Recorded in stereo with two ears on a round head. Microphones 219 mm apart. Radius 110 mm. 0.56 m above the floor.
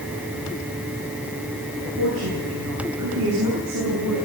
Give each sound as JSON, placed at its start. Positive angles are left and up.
{"t": 2.0, "sound": "a woman speaking", "side_deg": -80, "distance_m": 10.0}